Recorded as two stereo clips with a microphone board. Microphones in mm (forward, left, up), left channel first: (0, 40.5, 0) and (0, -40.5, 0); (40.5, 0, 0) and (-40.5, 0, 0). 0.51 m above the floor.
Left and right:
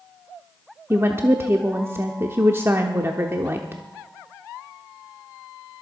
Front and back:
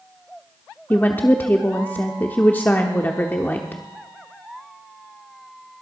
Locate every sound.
0.9 s a woman speaking: 55° right, 0.9 m